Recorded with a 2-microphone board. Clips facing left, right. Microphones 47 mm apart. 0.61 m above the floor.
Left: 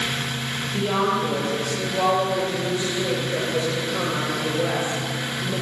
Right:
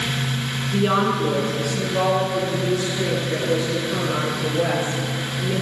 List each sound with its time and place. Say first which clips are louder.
0.7 s a woman speaking: right 3 dB; 65° right (ahead or behind), 9 m; by 5.5 s 60° right (ahead or behind), 13 m